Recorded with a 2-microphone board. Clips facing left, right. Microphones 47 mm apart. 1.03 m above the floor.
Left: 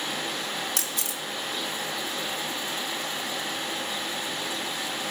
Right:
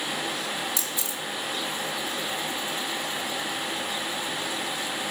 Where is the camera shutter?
55° left (ahead or behind), 1.0 m.